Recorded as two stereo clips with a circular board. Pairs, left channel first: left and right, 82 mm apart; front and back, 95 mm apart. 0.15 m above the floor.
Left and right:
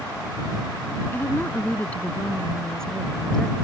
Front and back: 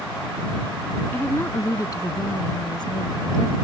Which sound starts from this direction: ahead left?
A woman speaking, at 1.1 s.